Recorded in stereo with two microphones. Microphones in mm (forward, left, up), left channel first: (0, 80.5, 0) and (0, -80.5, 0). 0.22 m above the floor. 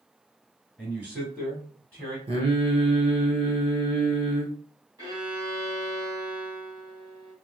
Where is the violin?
25° right (ahead or behind), 2.0 m.